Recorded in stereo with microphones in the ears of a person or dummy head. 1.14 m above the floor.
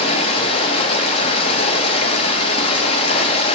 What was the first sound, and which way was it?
Running water, 35° left (ahead or behind).